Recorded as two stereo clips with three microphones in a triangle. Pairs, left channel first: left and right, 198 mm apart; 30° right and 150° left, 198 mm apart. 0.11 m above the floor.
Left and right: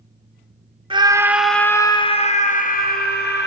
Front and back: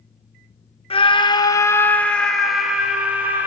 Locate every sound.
0.9 s a scream: 55° right, 1.2 m; by 3.5 s 70° left, 2 m